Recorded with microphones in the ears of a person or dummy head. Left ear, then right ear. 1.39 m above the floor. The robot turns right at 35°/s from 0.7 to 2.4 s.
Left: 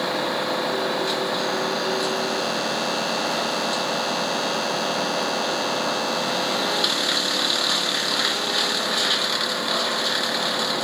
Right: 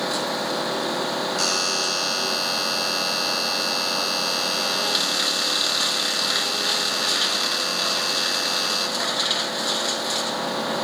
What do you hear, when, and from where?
1.4 s a buzzer: 75° right; by 9.1 s 40° right